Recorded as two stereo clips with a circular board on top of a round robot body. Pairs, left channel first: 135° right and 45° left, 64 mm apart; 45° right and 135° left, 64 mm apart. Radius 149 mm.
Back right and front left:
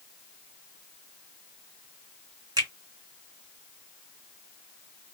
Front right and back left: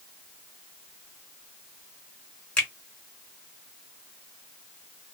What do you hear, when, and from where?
2.6 s a finger snap: 30° left, 1.2 m